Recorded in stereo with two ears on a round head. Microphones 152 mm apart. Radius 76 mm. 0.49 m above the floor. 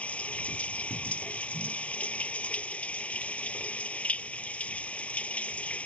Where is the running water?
10° left (ahead or behind).